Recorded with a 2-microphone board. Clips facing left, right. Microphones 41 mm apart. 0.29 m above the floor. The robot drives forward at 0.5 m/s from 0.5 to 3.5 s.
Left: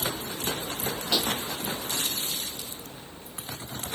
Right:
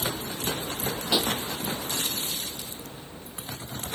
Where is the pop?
10° right (ahead or behind).